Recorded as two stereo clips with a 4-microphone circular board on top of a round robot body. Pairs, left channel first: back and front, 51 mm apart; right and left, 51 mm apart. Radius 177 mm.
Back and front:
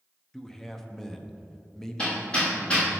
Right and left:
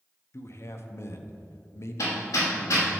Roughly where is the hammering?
Right.